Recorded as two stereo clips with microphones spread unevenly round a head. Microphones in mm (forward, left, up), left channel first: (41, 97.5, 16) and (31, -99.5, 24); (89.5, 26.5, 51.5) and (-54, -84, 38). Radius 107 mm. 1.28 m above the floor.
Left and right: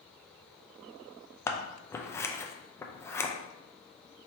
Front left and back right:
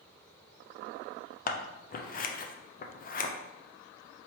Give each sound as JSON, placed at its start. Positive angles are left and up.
{"t": 1.5, "sound": "scissors", "azimuth_deg": 15, "distance_m": 0.5}